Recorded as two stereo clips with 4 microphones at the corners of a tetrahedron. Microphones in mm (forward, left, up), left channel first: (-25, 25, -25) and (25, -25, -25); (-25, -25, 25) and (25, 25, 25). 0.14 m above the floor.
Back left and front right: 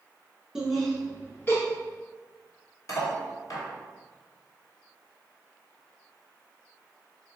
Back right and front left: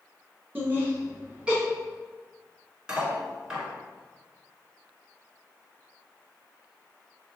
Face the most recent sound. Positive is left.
turn(degrees=120)